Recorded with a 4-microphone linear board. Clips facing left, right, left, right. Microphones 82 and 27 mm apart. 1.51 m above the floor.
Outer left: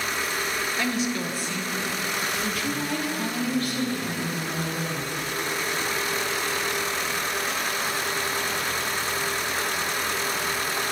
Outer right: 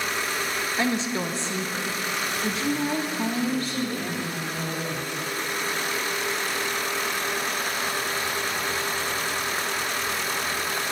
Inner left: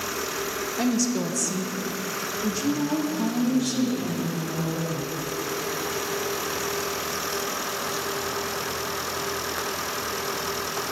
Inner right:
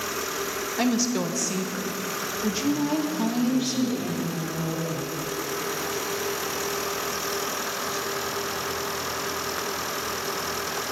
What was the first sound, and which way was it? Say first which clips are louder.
A woman speaking: outer right 3 dB, inner right 1 dB; 25° right (ahead or behind).